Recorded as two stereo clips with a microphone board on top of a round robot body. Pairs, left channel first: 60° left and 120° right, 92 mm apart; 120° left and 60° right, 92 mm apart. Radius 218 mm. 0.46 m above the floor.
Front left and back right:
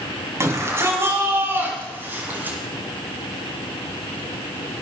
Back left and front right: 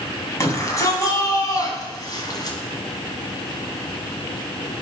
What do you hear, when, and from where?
0.4 s a shout: straight behind, 4.5 m; by 2.6 s 165° left, 5 m